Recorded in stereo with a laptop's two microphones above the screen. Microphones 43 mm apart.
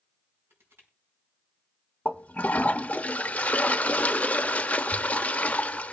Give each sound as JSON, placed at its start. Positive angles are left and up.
{"t": 0.5, "sound": "crushing", "side_deg": -70, "distance_m": 5.0}
{"t": 2.0, "sound": "a toilet flushing", "side_deg": 35, "distance_m": 0.8}